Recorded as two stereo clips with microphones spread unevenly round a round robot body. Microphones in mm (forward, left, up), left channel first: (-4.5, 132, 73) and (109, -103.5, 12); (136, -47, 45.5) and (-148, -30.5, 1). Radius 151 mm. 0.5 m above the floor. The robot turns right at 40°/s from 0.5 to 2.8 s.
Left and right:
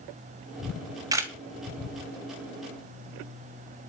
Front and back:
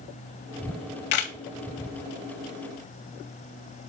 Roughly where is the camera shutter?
Ahead.